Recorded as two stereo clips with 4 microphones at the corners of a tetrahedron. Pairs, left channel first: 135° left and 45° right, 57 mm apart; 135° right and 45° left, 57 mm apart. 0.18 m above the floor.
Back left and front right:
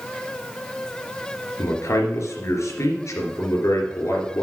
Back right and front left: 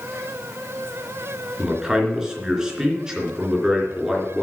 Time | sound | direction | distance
1.6 | a man speaking | 120° left | 3 m